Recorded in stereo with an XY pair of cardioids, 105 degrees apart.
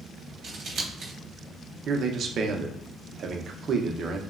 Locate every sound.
0.4 s scissors: 50° right, 0.9 m
1.9 s a man speaking: 55° right, 0.5 m